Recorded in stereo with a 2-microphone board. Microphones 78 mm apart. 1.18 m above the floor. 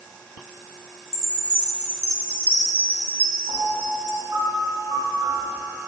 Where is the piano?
70° right (ahead or behind), 3.5 m.